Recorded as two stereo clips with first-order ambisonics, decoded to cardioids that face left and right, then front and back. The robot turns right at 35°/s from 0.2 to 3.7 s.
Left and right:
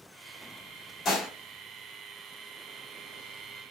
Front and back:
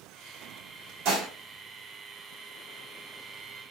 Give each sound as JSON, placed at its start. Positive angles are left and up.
{"t": 1.1, "sound": "dishes clattering", "azimuth_deg": 150, "distance_m": 1.6}